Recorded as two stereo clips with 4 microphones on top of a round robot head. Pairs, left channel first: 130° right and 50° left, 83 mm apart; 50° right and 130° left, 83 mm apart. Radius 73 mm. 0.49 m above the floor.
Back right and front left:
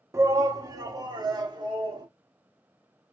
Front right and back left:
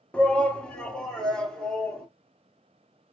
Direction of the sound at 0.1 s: 20° left.